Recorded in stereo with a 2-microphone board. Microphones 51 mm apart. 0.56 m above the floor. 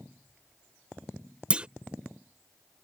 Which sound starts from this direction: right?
A clunk, at 1.5 s.